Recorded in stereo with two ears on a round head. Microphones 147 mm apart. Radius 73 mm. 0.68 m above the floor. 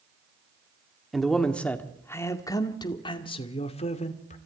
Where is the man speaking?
Centre (ahead or behind), 2 m; by 4.4 s 45° left (ahead or behind), 2.5 m.